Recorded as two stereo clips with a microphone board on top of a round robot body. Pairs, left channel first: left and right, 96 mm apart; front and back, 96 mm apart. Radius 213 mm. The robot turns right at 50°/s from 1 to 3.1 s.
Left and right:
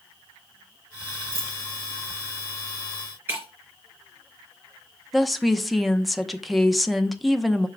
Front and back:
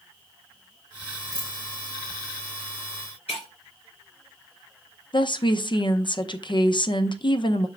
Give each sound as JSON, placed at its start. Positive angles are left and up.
{"t": 1.3, "sound": "a dropped coin", "azimuth_deg": -85, "distance_m": 1.3}
{"t": 3.3, "sound": "breaking glass", "azimuth_deg": -25, "distance_m": 3.0}
{"t": 5.1, "sound": "a woman speaking", "azimuth_deg": 0, "distance_m": 1.0}